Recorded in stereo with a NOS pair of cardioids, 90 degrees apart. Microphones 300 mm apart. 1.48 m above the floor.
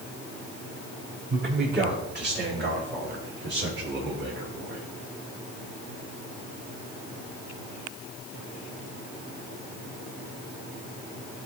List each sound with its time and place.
1.3 s a man speaking: 35° right, 5 m; by 4.9 s 40° right, 2.5 m